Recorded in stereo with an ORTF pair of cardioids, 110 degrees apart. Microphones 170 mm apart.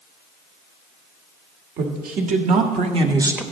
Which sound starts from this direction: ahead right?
A woman speaking, at 1.8 s.